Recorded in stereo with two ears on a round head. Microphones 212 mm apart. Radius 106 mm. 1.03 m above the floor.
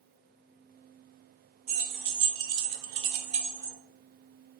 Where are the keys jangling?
70° right (ahead or behind), 0.9 m; by 3.8 s 10° right (ahead or behind), 0.6 m.